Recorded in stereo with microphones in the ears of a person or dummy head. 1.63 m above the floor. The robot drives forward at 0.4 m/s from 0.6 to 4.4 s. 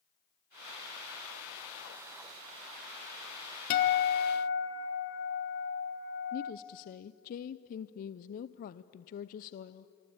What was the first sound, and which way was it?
A guitar, 50° left (ahead or behind).